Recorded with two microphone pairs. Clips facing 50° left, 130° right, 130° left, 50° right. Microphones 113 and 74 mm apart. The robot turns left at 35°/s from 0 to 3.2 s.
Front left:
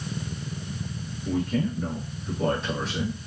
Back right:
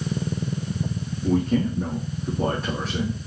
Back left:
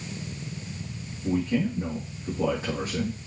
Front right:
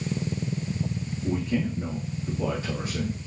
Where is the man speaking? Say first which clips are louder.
Back right 5 dB, back left 2 dB; 125° right, 4.5 m; by 3.2 s 170° left, 4.5 m.